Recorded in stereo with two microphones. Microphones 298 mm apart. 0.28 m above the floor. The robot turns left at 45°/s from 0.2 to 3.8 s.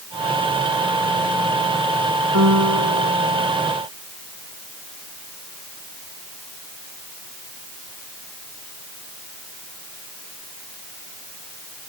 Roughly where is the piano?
Ahead right.